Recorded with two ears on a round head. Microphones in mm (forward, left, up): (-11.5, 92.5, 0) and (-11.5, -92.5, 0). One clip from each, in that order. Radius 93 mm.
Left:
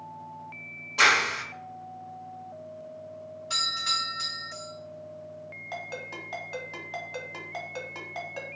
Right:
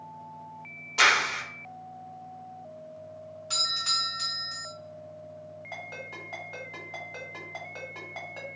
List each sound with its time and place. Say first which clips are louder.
1.0 s a clap: left 1 dB; 20° right (ahead or behind), 0.5 m
3.5 s a doorbell: even; 35° right (ahead or behind), 1.3 m
5.7 s a ringtone: left 2 dB; 20° left (ahead or behind), 1.2 m